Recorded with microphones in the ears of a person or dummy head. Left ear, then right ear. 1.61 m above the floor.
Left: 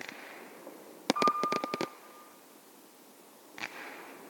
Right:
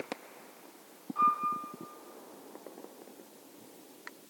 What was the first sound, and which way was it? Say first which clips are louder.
A piano: right 2 dB; 70° left (ahead or behind).